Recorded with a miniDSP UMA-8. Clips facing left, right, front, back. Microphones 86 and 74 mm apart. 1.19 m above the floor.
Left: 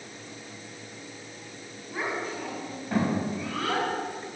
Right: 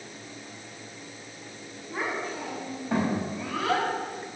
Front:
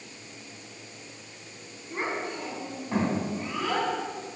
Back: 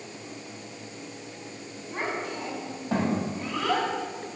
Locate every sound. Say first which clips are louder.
1.9 s a child speaking: even, even; 175° left, 6 m; by 3.9 s 160° right, 5 m